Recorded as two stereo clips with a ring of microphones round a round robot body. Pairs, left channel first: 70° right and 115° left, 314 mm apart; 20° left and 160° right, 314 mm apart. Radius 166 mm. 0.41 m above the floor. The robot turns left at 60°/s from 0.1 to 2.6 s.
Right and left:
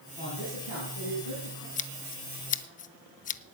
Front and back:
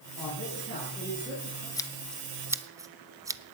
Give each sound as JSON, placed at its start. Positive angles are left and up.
{"t": 0.2, "sound": "a man speaking", "azimuth_deg": 0, "distance_m": 4.0}
{"t": 1.8, "sound": "scissors", "azimuth_deg": -40, "distance_m": 0.5}